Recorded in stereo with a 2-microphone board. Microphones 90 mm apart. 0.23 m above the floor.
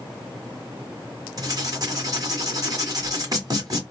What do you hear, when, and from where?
1.4 s writing: 45° right (ahead or behind), 1.4 m